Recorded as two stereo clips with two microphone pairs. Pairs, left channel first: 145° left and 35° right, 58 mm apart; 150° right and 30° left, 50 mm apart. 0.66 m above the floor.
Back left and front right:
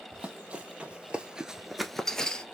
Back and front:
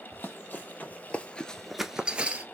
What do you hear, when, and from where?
0.1 s running footsteps: 105° right, 1.5 m; by 2.5 s 75° left, 0.9 m